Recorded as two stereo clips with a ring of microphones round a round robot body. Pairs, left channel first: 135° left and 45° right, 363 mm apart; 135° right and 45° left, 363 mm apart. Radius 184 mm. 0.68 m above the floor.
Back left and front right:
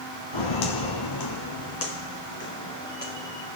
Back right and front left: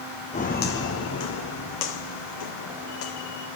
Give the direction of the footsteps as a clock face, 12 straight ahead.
7 o'clock.